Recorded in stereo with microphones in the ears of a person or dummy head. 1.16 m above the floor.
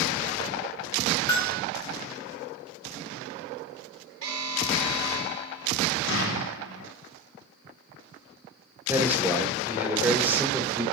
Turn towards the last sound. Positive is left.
turn(degrees=-10)  # may be behind; listen again after turning